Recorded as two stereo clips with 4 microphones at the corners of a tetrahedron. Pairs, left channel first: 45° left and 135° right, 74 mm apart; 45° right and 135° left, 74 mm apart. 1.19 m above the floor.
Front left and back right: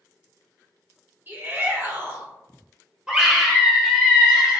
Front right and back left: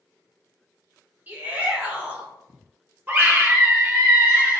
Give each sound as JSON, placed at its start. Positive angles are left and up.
{"t": 1.3, "sound": "a shout", "azimuth_deg": -175, "distance_m": 0.8}
{"t": 3.1, "sound": "a scream", "azimuth_deg": 155, "distance_m": 0.7}